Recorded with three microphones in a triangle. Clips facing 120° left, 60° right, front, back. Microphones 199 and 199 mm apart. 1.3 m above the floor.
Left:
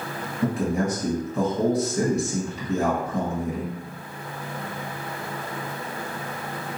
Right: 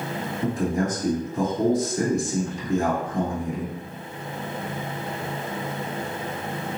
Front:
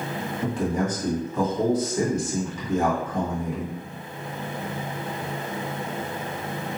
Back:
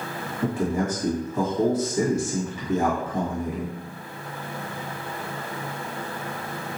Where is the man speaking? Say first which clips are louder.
Left 1 dB, back 1 dB; 100° left, 1.8 m.